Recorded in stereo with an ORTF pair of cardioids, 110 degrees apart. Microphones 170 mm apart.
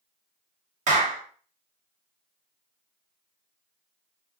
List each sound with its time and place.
0.9 s a clap: 50° right, 0.9 m